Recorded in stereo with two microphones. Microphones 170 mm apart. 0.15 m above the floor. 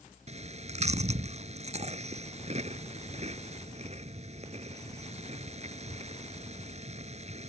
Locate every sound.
0.3 s chewing: 45° right (ahead or behind)